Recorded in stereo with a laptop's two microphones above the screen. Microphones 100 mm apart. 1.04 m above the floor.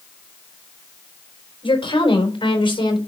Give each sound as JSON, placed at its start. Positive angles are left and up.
{"t": 1.6, "sound": "a woman speaking", "side_deg": 65, "distance_m": 4.0}